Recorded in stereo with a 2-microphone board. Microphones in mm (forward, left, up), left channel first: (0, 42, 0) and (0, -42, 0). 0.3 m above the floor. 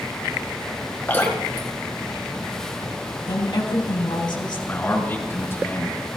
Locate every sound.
1.1 s dripping: 20° left (ahead or behind), 4 m
3.3 s a woman speaking: 65° left (ahead or behind), 3 m
4.7 s a man speaking: 30° left (ahead or behind), 4.5 m